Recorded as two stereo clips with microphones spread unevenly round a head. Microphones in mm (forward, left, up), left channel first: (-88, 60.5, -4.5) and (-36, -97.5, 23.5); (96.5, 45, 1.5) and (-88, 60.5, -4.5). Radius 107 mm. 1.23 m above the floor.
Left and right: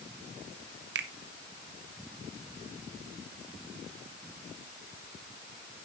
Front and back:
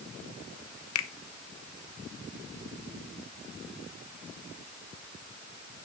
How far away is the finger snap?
About 0.9 m.